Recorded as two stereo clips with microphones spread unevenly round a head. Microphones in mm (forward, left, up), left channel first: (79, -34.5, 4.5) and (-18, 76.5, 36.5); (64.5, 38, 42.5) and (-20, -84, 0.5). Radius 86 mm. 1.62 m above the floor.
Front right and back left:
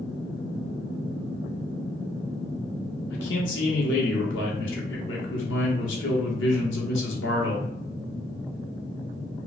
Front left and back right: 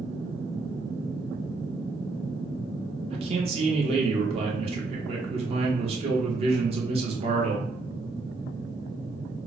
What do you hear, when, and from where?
3.1 s a man speaking: 70° right, 1.1 m